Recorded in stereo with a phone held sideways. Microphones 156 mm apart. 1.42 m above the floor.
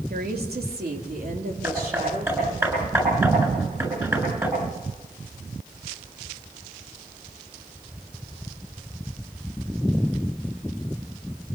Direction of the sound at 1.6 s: 20° right (ahead or behind).